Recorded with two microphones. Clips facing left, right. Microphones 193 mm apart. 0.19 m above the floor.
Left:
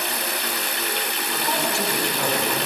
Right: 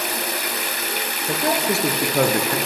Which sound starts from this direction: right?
A man speaking, at 1.3 s.